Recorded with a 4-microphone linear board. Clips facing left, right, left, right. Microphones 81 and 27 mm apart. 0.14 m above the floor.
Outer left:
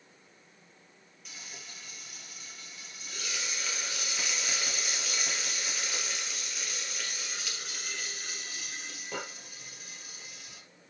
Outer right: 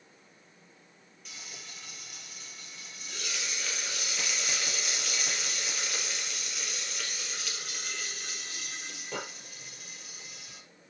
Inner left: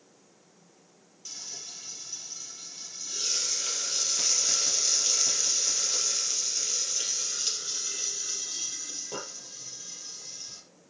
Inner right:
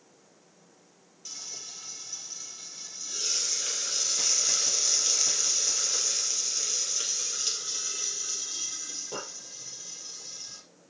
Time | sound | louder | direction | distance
1.2 | frying | even, even | centre (ahead or behind) | 3 m